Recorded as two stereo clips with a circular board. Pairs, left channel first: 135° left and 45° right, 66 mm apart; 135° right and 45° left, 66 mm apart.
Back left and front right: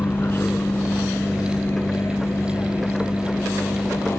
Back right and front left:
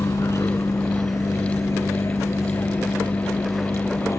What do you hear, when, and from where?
0.0 s a vehicle: 170° right; by 4.2 s 175° right